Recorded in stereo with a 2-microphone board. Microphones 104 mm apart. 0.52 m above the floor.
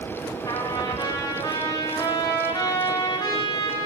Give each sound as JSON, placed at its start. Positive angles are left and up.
{"t": 0.5, "sound": "a trumpet", "side_deg": 40, "distance_m": 2.5}